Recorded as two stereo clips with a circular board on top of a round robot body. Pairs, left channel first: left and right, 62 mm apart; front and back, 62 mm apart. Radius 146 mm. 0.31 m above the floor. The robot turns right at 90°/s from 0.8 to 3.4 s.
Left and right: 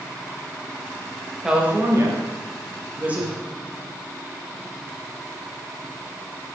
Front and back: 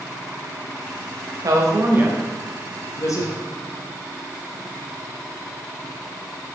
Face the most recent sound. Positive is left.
turn(degrees=5)